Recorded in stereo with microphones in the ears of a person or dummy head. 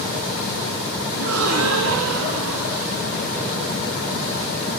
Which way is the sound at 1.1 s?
75° right (ahead or behind).